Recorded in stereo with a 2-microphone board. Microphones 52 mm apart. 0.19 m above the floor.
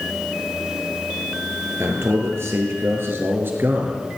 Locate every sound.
1.8 s a man speaking: 65° right (ahead or behind), 4 m; by 4.0 s 45° right (ahead or behind), 3.5 m